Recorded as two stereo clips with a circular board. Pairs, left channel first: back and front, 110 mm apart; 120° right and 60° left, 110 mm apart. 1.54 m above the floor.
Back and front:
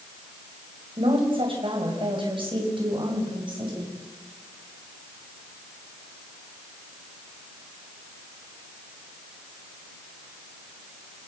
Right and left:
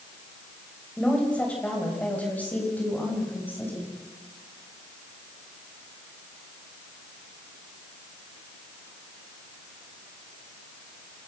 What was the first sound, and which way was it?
A woman speaking, 40° right.